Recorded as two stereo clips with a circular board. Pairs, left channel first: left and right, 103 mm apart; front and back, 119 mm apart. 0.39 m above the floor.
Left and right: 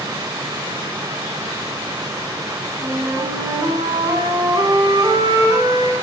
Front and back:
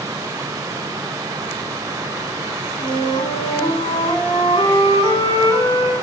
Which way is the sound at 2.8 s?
40° right.